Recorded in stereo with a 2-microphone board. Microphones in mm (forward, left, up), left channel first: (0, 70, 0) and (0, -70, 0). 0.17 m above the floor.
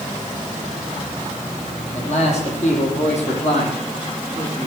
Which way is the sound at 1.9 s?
55° left (ahead or behind).